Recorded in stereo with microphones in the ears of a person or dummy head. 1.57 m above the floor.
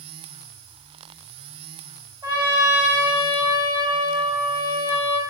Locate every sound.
2.2 s a trumpet: 25° right (ahead or behind), 3.5 m